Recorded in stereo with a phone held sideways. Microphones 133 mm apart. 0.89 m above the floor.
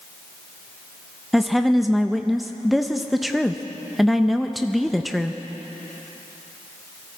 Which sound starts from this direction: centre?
A woman speaking, at 1.3 s.